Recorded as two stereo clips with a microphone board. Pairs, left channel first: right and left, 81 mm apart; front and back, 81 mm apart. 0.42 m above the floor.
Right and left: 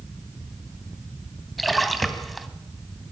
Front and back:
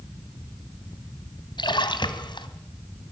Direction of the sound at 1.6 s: Straight ahead.